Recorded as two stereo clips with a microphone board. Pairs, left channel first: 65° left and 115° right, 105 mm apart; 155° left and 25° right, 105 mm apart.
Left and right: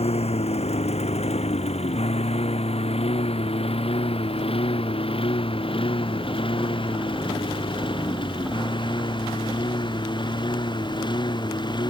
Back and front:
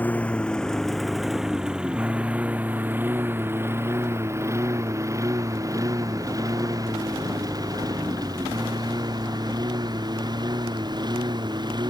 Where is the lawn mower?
80° left; by 11.9 s 25° left.